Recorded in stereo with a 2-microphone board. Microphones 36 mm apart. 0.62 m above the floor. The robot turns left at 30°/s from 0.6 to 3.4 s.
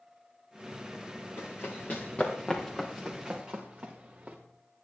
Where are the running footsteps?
70° left (ahead or behind), 4 m; by 4.4 s 40° right (ahead or behind), 4 m.